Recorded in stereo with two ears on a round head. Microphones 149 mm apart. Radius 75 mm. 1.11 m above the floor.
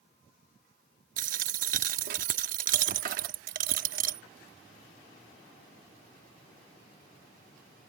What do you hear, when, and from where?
1.2 s a dropped coin: 50° right (ahead or behind)